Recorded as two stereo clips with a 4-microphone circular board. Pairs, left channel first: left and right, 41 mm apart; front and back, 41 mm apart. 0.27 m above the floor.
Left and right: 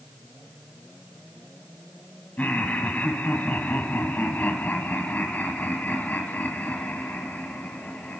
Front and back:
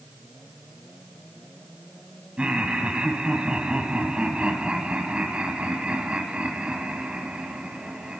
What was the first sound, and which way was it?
Laughter, 125° left.